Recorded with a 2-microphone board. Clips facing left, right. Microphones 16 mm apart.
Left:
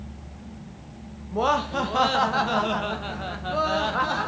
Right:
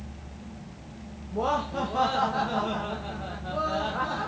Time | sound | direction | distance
1.3 | laughter | 40° left (ahead or behind) | 0.9 m